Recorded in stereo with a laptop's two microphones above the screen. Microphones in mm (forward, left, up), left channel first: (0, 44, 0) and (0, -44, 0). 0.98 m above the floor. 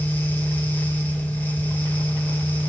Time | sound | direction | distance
0.0 | a fan | 20° left (ahead or behind) | 3.5 m